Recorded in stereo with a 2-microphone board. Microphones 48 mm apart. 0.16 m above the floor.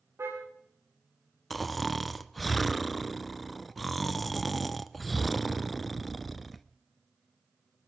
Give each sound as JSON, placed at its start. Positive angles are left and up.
{"t": 0.2, "sound": "a car horn", "side_deg": -65, "distance_m": 10.0}
{"t": 1.5, "sound": "snoring", "side_deg": 0, "distance_m": 0.6}